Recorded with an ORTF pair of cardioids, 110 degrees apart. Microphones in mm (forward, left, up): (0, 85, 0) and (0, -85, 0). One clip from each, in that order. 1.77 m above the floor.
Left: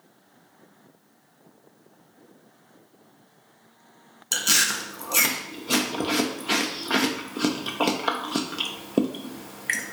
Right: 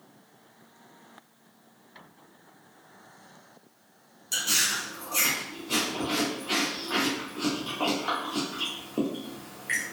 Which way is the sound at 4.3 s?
50° left.